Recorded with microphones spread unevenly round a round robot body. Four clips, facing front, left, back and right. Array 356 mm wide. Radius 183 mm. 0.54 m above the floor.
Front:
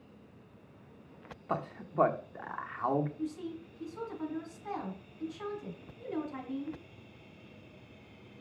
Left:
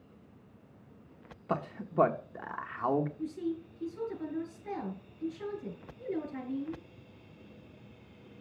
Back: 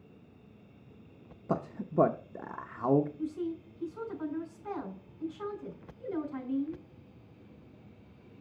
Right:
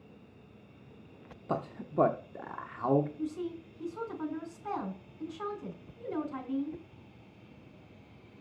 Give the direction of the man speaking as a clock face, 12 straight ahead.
6 o'clock.